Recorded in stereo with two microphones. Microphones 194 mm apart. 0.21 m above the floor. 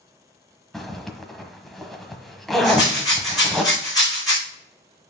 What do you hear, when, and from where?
0.7 s a zipper: centre (ahead or behind), 1.2 m
2.6 s a rattle: 20° left (ahead or behind), 4.5 m